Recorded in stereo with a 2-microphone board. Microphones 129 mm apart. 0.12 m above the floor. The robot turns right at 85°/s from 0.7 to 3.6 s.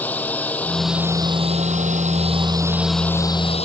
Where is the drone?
10° left (ahead or behind); by 3.6 s 55° left (ahead or behind).